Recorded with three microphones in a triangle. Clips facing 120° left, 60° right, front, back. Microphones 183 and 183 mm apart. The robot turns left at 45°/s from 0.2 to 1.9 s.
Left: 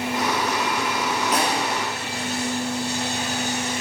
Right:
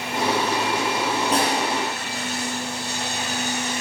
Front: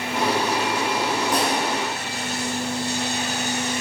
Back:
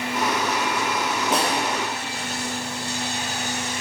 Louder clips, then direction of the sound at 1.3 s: Right 1 dB, back 2 dB; 115° right.